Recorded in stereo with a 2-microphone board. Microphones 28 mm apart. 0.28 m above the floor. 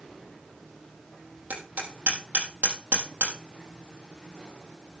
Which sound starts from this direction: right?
Hammering, at 1.5 s.